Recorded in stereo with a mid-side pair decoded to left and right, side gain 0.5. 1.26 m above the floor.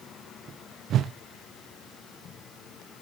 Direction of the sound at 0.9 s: 60° right.